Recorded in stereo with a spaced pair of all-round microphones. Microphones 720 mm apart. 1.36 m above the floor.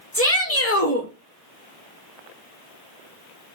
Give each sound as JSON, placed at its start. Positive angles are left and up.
{"t": 0.1, "sound": "a shout", "side_deg": 20, "distance_m": 0.7}